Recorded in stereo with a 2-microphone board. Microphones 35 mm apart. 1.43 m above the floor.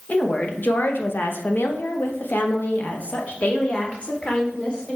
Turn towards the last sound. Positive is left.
turn(degrees=35)  # may be behind; listen again after turning